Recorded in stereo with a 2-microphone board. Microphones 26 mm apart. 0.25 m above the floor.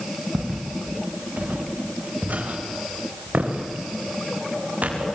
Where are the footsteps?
75° right (ahead or behind), 5 m.